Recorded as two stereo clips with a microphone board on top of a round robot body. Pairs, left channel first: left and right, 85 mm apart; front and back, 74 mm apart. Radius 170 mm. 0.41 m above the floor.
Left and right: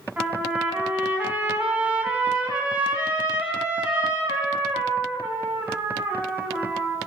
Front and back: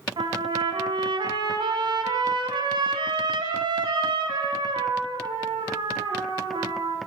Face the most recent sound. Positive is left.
turn(degrees=-165)